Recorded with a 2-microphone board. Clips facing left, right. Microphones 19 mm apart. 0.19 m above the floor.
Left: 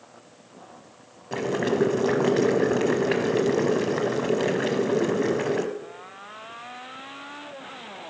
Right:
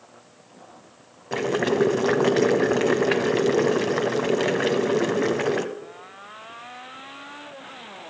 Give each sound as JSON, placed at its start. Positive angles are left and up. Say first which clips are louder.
{"t": 1.3, "sound": "boiling", "louder": "right 2 dB", "side_deg": -15, "distance_m": 0.9}